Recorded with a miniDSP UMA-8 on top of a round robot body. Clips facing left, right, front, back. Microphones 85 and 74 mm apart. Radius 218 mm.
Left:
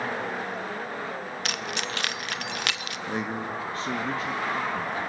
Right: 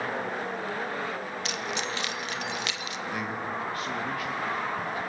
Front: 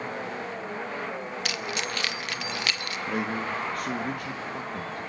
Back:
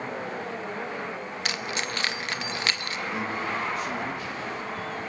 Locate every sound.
1.4 s keys jangling: 120° left, 0.8 m
3.1 s a man speaking: 30° left, 2 m